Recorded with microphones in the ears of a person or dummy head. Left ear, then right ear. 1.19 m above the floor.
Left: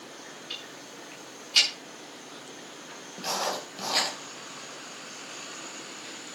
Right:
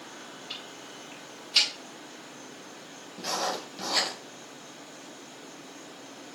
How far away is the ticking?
About 7.5 m.